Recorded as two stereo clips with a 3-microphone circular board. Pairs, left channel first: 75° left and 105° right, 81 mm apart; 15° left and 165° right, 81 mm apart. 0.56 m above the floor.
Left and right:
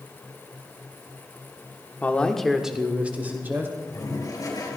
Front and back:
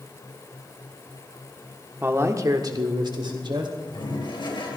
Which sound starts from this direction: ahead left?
A toilet flushing, at 3.8 s.